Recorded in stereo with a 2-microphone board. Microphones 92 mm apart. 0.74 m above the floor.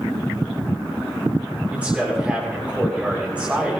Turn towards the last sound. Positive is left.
turn(degrees=-15)  # may be behind; listen again after turning